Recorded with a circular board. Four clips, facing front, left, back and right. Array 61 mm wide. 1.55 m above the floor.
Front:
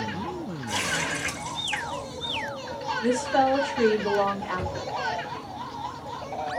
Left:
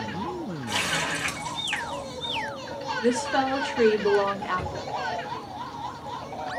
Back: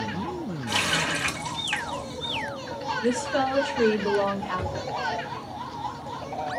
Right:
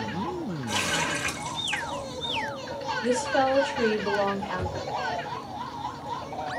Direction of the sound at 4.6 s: 70° left.